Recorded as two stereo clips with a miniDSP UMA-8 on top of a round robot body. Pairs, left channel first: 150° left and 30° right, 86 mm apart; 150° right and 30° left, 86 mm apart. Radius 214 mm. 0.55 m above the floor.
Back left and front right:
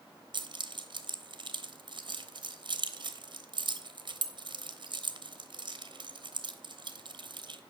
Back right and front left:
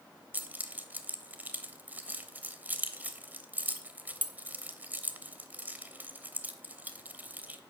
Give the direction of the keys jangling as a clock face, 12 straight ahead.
1 o'clock.